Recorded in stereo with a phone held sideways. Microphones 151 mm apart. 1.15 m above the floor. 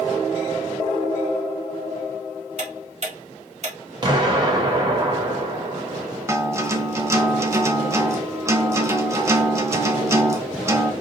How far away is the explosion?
About 1.0 m.